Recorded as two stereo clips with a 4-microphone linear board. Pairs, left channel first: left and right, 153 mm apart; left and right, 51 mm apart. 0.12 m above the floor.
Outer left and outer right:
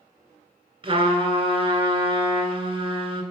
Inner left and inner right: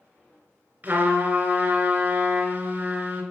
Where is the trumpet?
35° right (ahead or behind), 1.7 m.